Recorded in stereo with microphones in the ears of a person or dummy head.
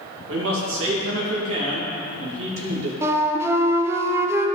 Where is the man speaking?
85° right, 2.5 m.